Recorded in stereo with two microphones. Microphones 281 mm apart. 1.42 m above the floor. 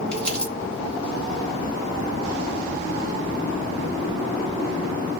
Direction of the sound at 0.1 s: 5° left (ahead or behind).